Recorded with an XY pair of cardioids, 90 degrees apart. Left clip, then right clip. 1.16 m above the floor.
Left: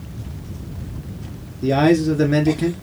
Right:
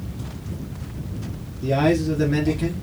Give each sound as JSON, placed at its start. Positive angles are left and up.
{"t": 1.6, "sound": "a man speaking", "azimuth_deg": 45, "distance_m": 1.9}